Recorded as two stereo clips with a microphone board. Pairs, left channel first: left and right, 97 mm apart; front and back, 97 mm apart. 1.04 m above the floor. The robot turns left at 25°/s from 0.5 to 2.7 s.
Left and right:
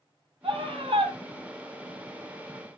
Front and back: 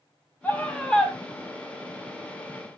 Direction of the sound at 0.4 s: 75° right.